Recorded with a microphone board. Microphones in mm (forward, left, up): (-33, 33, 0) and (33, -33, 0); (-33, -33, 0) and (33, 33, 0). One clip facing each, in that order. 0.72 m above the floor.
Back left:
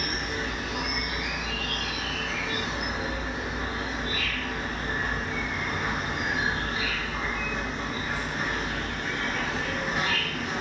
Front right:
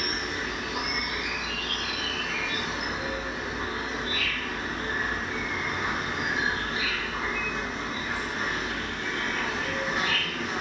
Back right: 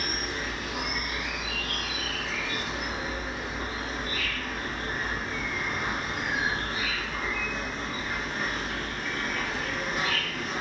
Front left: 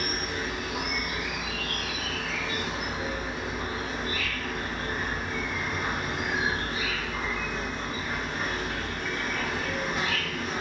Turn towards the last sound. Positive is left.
turn(degrees=90)